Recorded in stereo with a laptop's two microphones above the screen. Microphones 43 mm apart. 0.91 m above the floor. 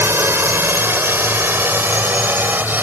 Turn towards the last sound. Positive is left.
turn(degrees=-45)  # may be behind; listen again after turning